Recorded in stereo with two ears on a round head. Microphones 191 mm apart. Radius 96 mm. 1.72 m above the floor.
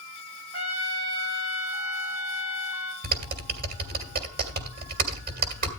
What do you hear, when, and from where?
0.5 s a trumpet: 70° right (ahead or behind), 2.5 m
3.0 s typing on a keyboard: 45° right (ahead or behind), 1.9 m